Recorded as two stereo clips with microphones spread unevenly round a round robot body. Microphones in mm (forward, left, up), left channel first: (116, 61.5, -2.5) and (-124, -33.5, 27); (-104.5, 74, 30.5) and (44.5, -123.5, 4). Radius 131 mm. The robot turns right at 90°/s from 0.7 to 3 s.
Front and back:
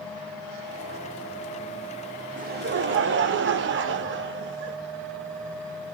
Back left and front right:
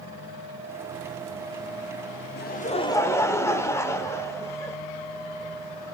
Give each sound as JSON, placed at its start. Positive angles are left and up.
{"t": 2.4, "sound": "laughter", "azimuth_deg": 150, "distance_m": 0.9}